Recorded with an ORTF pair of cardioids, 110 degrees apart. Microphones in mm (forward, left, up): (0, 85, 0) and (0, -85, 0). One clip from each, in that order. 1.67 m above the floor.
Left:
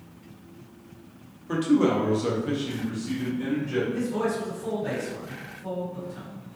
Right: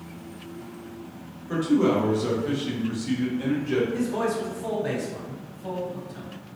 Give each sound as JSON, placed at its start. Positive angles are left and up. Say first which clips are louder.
{"t": 1.5, "sound": "a man speaking", "louder": "even", "azimuth_deg": 30, "distance_m": 0.9}
{"t": 3.9, "sound": "a man speaking", "louder": "right 1 dB", "azimuth_deg": -40, "distance_m": 1.4}